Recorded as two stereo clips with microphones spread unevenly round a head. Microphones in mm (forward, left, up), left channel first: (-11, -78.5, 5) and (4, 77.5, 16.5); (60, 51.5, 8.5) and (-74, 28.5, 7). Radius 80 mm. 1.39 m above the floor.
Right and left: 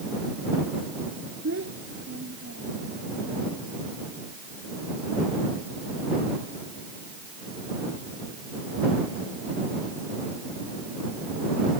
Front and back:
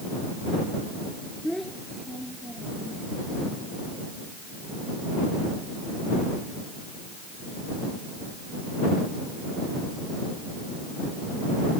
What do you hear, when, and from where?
1.4 s a child speaking: 95° left